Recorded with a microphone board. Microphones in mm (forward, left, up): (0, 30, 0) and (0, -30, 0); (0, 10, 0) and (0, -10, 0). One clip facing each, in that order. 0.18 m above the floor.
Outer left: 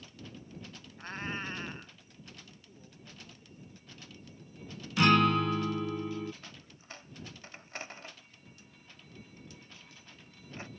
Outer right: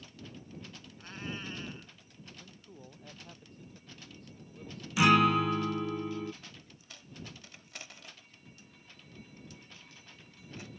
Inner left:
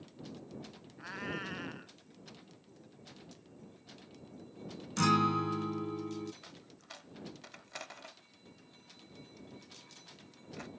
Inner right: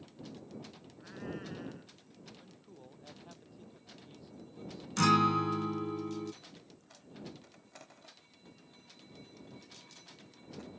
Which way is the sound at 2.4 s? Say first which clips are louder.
Outer right 3 dB, inner right 2 dB; 75° right (ahead or behind).